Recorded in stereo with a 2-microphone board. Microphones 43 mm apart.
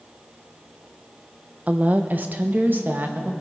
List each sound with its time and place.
1.7 s a woman speaking: 35° right (ahead or behind), 0.8 m; by 3.3 s 55° right (ahead or behind), 1.6 m